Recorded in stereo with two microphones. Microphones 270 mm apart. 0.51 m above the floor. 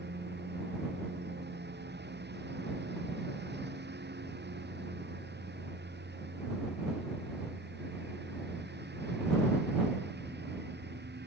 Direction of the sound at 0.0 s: 40° right (ahead or behind).